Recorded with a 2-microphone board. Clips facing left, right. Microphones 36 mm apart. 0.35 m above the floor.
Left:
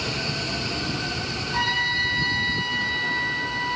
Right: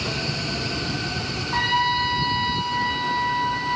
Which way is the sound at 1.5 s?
50° right (ahead or behind).